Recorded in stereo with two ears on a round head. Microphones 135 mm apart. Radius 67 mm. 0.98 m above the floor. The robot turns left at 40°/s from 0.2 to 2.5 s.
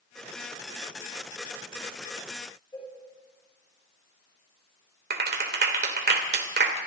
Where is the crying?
I don't hear crying.